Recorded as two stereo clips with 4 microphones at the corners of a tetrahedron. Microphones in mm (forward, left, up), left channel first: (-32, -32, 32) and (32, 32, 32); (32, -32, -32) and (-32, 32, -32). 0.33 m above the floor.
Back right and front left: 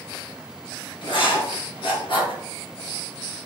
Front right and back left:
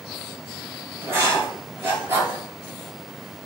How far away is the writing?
About 3.5 m.